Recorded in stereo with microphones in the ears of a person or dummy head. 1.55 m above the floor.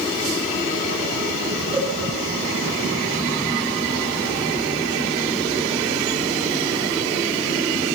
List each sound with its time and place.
1.7 s a cowbell: 25° right (ahead or behind), 6 m